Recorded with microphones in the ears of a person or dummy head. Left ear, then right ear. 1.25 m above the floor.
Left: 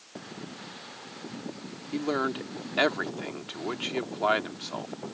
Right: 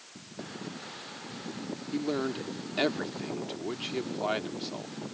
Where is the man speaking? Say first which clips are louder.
Left 3 dB; 40° left (ahead or behind).